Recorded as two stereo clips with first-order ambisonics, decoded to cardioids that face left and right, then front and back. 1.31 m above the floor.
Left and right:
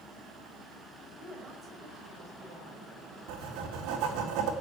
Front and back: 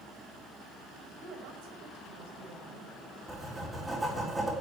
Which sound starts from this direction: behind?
A woman speaking, at 1.2 s.